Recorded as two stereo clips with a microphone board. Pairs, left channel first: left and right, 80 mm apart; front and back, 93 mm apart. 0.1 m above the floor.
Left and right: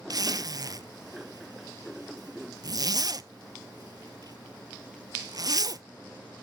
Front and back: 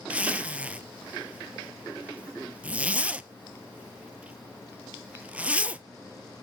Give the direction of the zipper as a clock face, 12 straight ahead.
4 o'clock.